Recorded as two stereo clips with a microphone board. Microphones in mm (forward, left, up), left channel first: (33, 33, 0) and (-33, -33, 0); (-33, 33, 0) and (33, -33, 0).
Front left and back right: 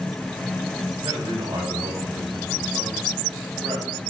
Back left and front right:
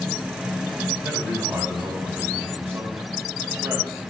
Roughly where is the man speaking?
Right.